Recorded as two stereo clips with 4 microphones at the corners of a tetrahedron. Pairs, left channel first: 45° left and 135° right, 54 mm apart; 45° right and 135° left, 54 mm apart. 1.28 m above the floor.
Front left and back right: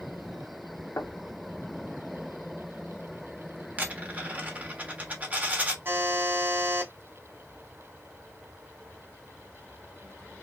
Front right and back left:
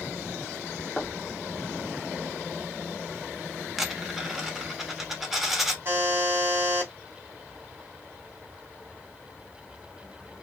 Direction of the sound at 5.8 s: 175° right.